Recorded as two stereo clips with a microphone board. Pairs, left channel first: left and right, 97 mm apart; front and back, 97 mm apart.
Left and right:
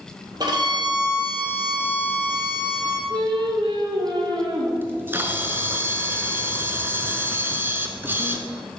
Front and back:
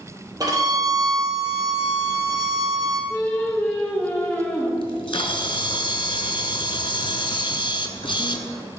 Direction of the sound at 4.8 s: 25° right.